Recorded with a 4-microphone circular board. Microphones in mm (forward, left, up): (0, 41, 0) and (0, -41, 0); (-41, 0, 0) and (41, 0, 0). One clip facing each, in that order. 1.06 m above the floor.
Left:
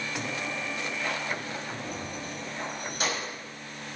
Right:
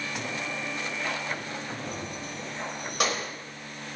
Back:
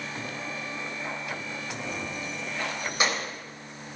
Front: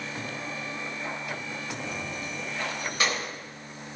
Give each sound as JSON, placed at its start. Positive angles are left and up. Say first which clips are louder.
{"t": 1.9, "sound": "keys jangling", "louder": "even, back 1 dB", "azimuth_deg": -115, "distance_m": 4.0}